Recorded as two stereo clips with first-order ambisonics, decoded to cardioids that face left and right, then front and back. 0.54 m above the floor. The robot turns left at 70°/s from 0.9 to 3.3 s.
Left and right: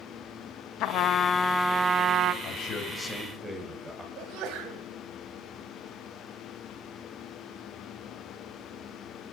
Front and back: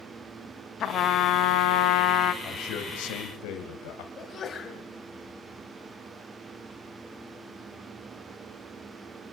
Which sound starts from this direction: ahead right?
A sneeze, at 4.2 s.